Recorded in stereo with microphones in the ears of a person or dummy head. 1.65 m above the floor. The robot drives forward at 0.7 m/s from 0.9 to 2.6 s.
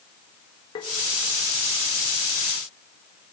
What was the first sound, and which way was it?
Tapping, 30° left (ahead or behind).